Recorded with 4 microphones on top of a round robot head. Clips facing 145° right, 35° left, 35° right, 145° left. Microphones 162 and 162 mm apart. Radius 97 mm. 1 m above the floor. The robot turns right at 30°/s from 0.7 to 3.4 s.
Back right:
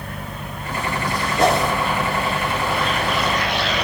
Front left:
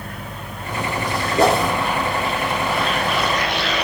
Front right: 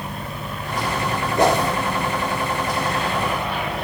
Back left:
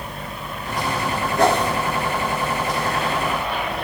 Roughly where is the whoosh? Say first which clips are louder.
Front left 2 dB, even; ahead left.